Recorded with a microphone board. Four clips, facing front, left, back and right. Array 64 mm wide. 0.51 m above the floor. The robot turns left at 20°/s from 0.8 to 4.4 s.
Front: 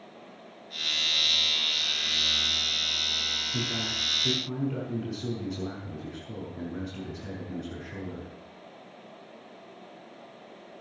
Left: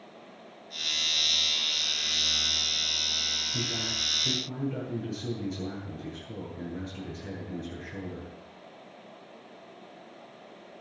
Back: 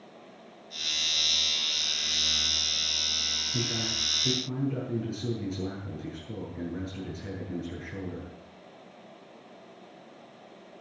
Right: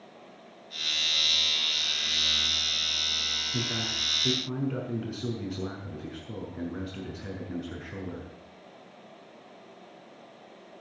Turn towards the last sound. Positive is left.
turn(degrees=-75)